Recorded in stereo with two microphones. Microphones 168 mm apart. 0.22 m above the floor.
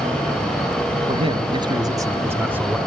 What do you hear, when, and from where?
1.1 s a man speaking: 35° right (ahead or behind), 1.7 m; by 2.8 s 10° right (ahead or behind), 2 m